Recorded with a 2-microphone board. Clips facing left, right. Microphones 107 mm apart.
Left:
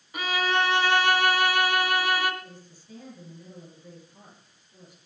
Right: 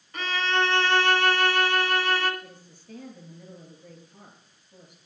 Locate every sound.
0.1 s a violin: 10° left (ahead or behind), 2 m
2.4 s a woman speaking: 55° right (ahead or behind), 9 m